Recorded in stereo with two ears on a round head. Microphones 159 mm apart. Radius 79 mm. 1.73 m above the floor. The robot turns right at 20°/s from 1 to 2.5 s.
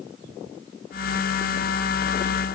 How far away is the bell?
I don't hear a bell.